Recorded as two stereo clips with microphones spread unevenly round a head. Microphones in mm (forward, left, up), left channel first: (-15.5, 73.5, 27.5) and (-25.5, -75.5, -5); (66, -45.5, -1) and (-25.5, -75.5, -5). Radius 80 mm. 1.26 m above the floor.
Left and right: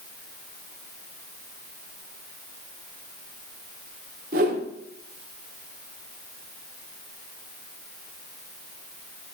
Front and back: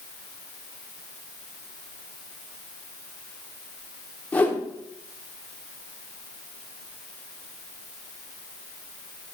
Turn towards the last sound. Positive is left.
turn(degrees=-55)